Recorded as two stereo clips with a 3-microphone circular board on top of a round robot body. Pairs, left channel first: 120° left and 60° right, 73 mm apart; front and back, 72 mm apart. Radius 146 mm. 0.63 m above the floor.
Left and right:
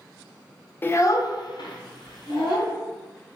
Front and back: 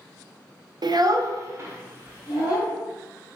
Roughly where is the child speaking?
Behind.